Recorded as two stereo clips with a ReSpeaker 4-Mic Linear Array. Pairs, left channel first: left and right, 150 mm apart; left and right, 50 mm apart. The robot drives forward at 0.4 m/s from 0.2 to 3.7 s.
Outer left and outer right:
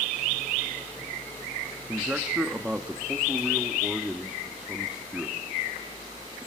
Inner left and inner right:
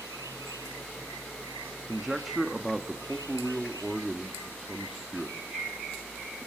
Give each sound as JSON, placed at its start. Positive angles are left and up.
{"t": 1.9, "sound": "a man speaking", "side_deg": -10, "distance_m": 1.1}